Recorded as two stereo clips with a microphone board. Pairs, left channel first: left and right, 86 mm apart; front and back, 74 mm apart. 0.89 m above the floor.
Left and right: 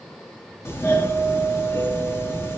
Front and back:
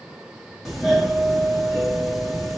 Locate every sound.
0.7 s a doorbell: 95° left, 1.2 m